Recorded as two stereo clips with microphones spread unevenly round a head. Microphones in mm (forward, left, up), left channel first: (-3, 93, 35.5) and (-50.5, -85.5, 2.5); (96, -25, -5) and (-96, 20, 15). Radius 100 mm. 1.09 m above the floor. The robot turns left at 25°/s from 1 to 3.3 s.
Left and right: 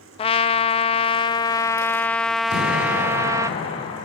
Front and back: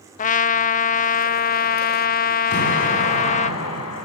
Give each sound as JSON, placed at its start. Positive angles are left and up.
{"t": 0.2, "sound": "a trumpet", "azimuth_deg": 10, "distance_m": 0.6}
{"t": 2.5, "sound": "an explosion", "azimuth_deg": 30, "distance_m": 8.0}